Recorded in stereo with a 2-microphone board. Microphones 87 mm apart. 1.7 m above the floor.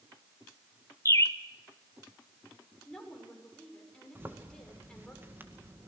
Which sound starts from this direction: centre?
A woman speaking, at 2.9 s.